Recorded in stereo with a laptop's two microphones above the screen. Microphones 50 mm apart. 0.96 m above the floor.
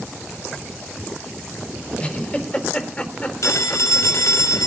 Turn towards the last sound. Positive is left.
turn(degrees=70)  # may be behind; listen again after turning